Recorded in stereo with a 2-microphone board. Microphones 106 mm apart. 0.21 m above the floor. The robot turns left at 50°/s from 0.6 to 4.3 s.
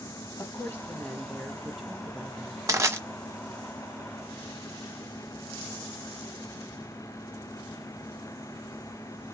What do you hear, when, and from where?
0.4 s a woman speaking: 25° left (ahead or behind), 1.1 m; by 2.6 s 20° right (ahead or behind), 1.1 m
2.7 s crushing: 30° right (ahead or behind), 1.5 m; by 3.0 s 25° right (ahead or behind), 1.5 m